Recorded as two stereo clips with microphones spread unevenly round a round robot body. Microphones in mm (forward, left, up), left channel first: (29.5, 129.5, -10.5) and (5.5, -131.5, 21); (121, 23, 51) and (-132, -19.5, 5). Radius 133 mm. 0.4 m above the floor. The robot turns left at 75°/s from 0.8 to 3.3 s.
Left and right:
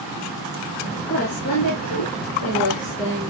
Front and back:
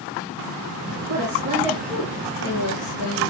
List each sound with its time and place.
1.1 s a woman speaking: 155° left, 6 m; by 3.3 s 10° right, 6 m